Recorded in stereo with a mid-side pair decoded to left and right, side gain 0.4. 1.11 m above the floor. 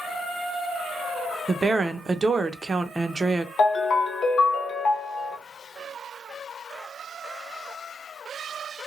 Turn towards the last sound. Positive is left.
turn(degrees=60)